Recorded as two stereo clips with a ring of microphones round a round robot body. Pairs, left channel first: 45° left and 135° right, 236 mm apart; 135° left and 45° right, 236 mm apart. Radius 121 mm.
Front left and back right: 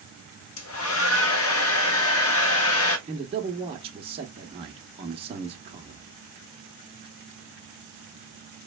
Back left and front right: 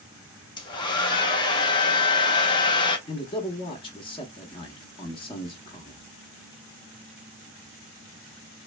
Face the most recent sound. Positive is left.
turn(degrees=-175)